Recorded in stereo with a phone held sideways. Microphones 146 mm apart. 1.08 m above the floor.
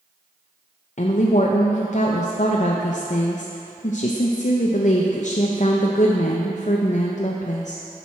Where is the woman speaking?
55° left (ahead or behind), 0.5 m.